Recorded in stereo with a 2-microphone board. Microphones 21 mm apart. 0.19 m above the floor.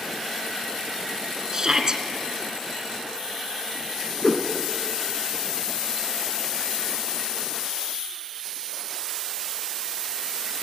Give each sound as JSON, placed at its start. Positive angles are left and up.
{"t": 1.5, "sound": "a shout", "side_deg": -35, "distance_m": 3.0}
{"t": 4.2, "sound": "a whoosh", "side_deg": 30, "distance_m": 1.5}